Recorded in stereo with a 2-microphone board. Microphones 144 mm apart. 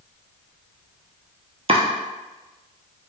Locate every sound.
1.7 s chopping: 45° right (ahead or behind), 0.6 m